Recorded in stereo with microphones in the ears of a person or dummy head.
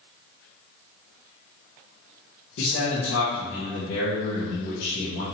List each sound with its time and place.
2.6 s a man speaking: 60° left (ahead or behind), 0.7 m